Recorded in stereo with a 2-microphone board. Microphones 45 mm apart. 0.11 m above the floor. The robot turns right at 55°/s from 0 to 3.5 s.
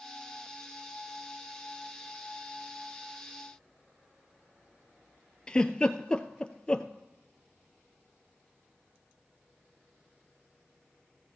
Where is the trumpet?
I don't hear a trumpet.